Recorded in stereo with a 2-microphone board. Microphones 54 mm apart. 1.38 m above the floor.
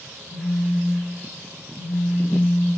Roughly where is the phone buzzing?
Left.